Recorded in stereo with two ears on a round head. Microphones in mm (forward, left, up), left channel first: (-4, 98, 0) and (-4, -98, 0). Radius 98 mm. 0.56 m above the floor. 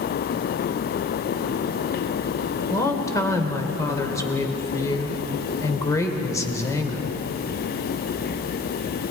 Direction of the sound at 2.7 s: 15° left (ahead or behind).